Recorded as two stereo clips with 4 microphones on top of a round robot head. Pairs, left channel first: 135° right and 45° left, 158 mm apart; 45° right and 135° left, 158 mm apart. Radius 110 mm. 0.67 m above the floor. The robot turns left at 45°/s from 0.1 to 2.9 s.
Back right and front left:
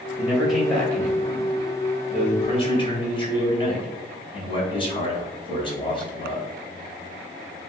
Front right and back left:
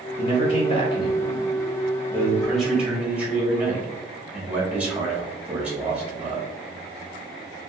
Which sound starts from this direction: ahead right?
A man speaking, at 0.2 s.